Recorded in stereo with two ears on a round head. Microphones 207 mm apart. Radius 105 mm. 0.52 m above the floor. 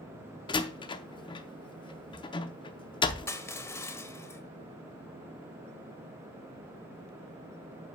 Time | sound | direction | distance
0.5 | a door slam | 20° left (ahead or behind) | 0.6 m
3.3 | crushing | 10° left (ahead or behind) | 1.0 m